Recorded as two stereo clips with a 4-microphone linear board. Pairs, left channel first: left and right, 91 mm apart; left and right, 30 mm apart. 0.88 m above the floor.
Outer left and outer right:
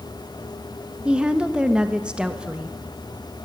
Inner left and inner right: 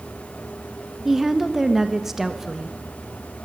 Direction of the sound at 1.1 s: 10° right (ahead or behind).